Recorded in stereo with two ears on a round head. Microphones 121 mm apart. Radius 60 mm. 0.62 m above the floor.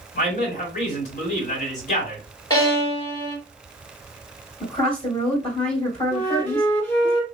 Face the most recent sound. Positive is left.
turn(degrees=15)  # may be behind; listen again after turning